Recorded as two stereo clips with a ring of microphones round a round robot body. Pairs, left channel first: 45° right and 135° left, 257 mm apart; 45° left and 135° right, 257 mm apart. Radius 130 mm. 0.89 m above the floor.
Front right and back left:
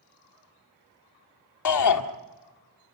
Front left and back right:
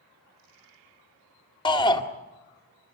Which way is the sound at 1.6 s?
30° right.